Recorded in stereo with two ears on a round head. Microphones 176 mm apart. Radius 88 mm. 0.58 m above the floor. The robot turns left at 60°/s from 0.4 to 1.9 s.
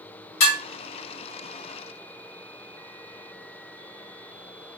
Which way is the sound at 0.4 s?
75° left (ahead or behind).